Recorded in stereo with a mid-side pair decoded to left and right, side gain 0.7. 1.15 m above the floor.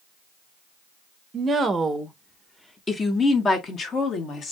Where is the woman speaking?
30° right, 0.8 m; by 4.5 s 40° left, 1.8 m.